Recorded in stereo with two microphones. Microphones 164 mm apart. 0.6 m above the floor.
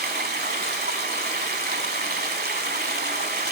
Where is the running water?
70° right (ahead or behind), 0.9 m.